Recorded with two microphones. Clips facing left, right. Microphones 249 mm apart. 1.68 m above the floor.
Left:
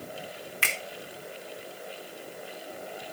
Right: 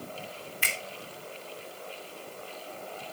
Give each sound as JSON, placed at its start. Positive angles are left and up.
{"t": 0.6, "sound": "a finger snap", "side_deg": 75, "distance_m": 2.5}